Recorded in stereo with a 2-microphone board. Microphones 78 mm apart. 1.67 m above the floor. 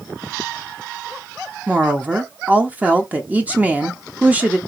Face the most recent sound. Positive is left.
turn(degrees=-20)  # may be behind; listen again after turning